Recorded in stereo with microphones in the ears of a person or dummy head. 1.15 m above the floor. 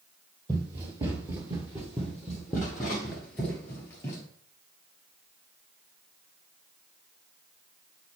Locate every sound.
0.5 s running footsteps: 15° right (ahead or behind), 1.7 m; by 4.2 s 15° left (ahead or behind), 1.5 m